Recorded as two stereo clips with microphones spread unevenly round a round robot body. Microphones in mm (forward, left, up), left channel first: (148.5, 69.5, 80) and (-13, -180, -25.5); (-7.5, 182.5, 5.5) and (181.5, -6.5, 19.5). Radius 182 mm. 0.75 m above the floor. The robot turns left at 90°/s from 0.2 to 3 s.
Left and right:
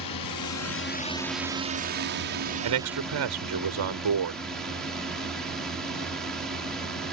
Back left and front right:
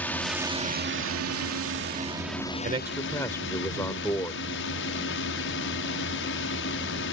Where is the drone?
55° left; by 7.1 s 160° left.